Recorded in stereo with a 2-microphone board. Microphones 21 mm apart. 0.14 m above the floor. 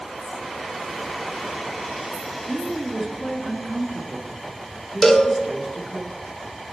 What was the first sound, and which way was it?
A woman speaking, 20° right (ahead or behind).